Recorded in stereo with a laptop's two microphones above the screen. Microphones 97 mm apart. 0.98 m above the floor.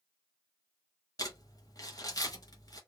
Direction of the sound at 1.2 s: 35° left (ahead or behind).